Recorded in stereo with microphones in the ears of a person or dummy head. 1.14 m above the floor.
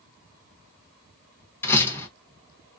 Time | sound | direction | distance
1.6 | a door slam | 15° left (ahead or behind) | 1.2 m